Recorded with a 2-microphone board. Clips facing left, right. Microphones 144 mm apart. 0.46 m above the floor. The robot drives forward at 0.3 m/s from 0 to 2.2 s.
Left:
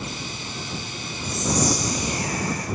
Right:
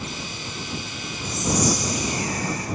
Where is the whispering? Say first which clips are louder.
Right 1 dB; 40° left (ahead or behind), 1.7 m.